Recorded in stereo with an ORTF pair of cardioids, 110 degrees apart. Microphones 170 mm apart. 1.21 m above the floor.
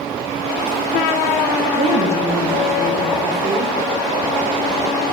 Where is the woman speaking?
45° right, 1.8 m; by 3.7 s 40° right, 3.5 m.